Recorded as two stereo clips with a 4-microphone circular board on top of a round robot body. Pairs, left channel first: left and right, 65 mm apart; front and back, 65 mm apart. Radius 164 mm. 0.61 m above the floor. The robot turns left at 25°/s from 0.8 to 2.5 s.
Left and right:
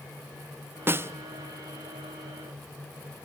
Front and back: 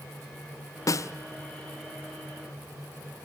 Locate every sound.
0.9 s a snare drum: 35° right, 1.0 m; by 1.1 s 40° right, 1.0 m